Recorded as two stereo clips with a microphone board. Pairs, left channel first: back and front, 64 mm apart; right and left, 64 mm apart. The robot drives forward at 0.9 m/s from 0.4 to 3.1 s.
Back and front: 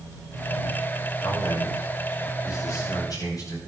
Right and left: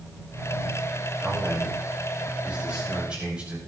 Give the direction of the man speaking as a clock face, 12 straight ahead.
7 o'clock.